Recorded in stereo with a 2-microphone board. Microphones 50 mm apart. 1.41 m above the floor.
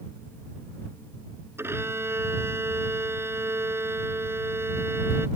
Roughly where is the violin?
Right.